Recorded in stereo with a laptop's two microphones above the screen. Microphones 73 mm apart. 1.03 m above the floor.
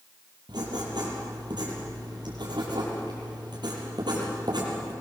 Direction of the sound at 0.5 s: 80° right.